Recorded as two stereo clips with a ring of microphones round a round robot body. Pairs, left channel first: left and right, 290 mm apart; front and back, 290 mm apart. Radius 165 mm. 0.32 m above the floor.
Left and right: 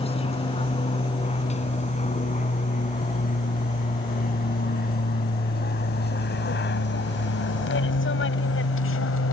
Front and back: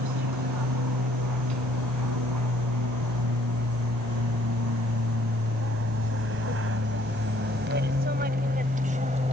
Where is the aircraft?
160° left; by 9.3 s 115° left.